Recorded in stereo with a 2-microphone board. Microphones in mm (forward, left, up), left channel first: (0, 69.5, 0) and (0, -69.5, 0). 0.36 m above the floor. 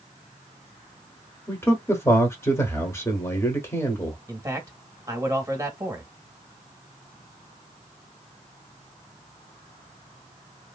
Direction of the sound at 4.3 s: 25° right (ahead or behind).